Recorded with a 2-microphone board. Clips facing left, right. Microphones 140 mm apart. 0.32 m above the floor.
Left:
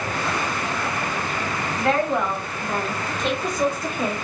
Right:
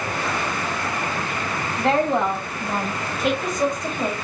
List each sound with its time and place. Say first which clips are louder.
1.8 s a woman speaking: right 2 dB; 30° right (ahead or behind), 1.6 m; by 4.2 s 15° left (ahead or behind), 1.1 m